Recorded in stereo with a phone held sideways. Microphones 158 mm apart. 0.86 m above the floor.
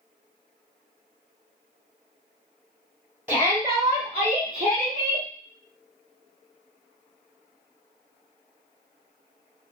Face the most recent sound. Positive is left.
turn(degrees=-65)  # may be behind; listen again after turning